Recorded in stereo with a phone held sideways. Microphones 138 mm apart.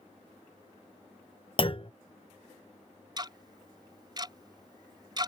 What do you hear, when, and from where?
1.6 s a clunk: 40° left (ahead or behind)
3.2 s ticking: 35° right (ahead or behind)